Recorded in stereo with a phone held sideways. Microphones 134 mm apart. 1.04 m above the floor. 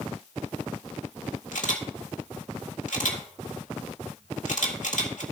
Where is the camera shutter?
70° left (ahead or behind), 1.7 m.